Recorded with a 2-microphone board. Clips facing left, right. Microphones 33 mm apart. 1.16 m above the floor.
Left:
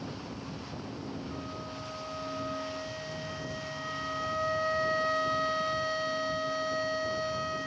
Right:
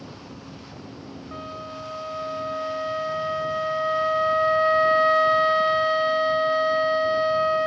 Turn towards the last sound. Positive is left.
turn(degrees=-30)  # may be behind; listen again after turning